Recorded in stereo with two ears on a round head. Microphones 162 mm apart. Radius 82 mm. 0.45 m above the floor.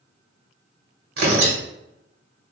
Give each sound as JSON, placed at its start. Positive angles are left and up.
{"t": 1.2, "sound": "tearing paper", "side_deg": -60, "distance_m": 1.0}